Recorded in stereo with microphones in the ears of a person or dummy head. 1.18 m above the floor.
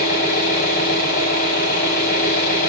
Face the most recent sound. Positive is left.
turn(degrees=45)  # may be behind; listen again after turning